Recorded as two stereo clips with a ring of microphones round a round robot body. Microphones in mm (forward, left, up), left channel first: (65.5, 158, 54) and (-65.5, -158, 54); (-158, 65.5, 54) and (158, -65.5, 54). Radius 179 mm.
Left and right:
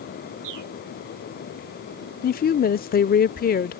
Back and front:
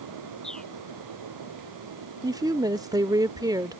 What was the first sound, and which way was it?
A bird, 115° right.